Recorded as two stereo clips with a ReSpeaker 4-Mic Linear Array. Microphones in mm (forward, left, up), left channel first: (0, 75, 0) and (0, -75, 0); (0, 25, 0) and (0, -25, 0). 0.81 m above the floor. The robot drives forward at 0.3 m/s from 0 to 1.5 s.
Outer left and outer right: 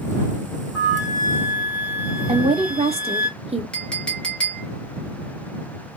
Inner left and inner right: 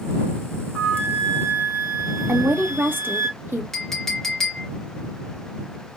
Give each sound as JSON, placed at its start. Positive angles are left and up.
{"t": 0.8, "sound": "a flute", "side_deg": 30, "distance_m": 1.2}
{"t": 2.3, "sound": "a woman speaking", "side_deg": -40, "distance_m": 0.7}
{"t": 3.7, "sound": "a clink", "side_deg": 5, "distance_m": 0.6}